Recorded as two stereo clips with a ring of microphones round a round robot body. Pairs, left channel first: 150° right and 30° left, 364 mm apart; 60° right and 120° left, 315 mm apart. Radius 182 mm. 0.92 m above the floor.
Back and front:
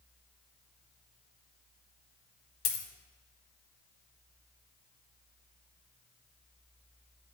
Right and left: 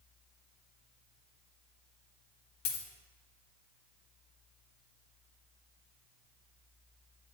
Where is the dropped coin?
105° right, 0.9 m.